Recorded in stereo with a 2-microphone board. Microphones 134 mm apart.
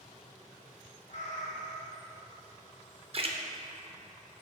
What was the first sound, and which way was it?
A cat meowing, 60° left (ahead or behind).